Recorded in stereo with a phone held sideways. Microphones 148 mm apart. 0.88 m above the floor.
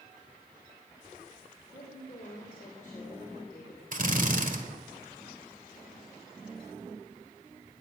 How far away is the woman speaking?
About 3 m.